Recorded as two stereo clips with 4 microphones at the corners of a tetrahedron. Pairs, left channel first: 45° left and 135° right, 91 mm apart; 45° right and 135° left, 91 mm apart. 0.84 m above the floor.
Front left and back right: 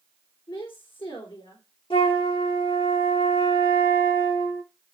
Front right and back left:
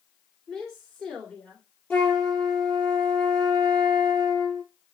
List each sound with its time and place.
0.5 s a woman speaking: 40° left, 3 m
1.9 s a flute: 30° left, 7.5 m